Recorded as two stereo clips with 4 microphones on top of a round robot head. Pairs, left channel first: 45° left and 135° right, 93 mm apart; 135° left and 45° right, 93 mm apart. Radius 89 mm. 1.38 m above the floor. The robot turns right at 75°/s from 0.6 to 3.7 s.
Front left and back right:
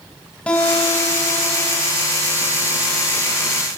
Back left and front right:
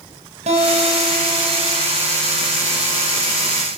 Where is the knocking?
I don't hear knocking.